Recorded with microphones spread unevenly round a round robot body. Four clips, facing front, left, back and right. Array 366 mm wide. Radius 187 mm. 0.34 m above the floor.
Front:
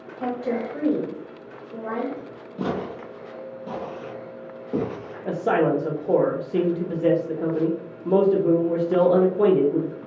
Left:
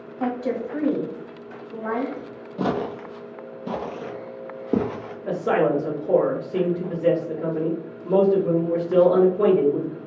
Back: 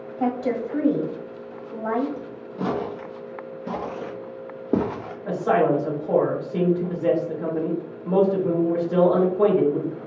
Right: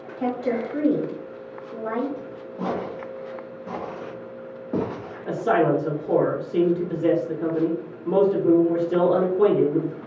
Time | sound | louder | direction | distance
0.2 | a woman speaking | right 1 dB, back 2 dB | 165° left | 1.5 m
2.6 | footsteps | left 3 dB, back 1 dB | 55° left | 0.6 m
5.2 | a man speaking | right 1 dB, back 1 dB | straight ahead | 1.1 m